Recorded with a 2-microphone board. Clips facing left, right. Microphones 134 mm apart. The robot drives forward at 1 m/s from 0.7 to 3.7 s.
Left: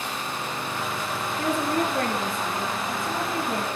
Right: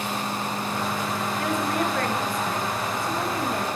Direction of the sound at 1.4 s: 35° left (ahead or behind).